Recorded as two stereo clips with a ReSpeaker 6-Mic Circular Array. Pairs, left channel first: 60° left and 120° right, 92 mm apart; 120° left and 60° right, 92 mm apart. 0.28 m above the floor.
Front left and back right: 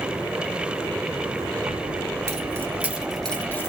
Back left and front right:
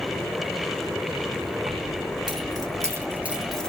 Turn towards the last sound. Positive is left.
turn(degrees=50)